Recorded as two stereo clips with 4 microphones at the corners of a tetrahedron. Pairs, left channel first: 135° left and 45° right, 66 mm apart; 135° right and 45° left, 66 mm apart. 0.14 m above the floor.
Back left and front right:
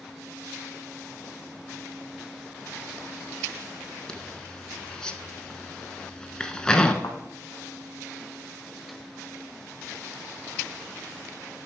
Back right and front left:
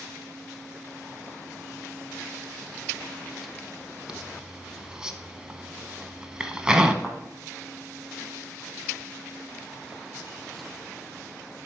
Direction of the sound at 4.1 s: 90° left.